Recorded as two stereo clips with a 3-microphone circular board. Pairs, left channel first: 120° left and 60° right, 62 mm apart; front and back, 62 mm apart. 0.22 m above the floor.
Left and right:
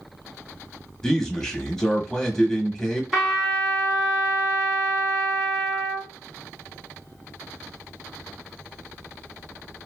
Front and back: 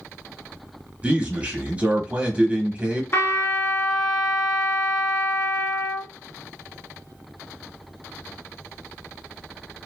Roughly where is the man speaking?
Behind.